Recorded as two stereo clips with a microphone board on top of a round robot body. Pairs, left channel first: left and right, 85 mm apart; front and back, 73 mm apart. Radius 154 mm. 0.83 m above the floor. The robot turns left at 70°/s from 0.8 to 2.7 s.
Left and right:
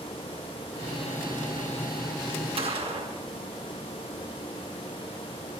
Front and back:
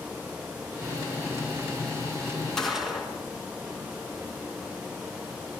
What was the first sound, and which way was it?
A gunshot, 85° right.